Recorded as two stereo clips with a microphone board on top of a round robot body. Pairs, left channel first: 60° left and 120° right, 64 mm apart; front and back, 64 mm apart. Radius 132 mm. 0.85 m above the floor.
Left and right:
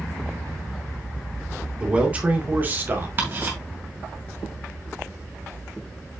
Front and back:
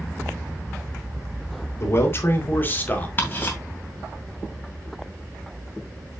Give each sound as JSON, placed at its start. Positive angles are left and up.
{"t": 1.8, "sound": "a man speaking", "azimuth_deg": -45, "distance_m": 2.5}
{"t": 3.2, "sound": "ticking", "azimuth_deg": -60, "distance_m": 2.5}